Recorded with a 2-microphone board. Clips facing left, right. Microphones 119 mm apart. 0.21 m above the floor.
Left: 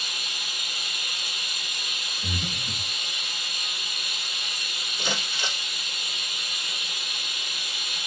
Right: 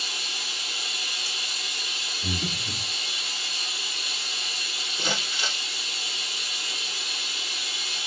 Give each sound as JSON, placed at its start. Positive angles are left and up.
{"t": 0.0, "sound": "running water", "side_deg": -35, "distance_m": 2.0}
{"t": 2.2, "sound": "breathing", "side_deg": -25, "distance_m": 4.0}
{"t": 5.0, "sound": "crumpling", "side_deg": -25, "distance_m": 6.5}